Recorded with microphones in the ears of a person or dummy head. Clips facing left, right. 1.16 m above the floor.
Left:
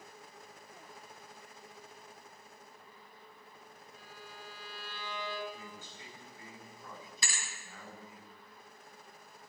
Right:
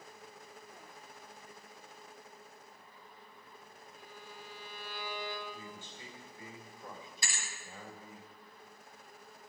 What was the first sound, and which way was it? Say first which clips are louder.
A violin: right 1 dB; 45° left (ahead or behind).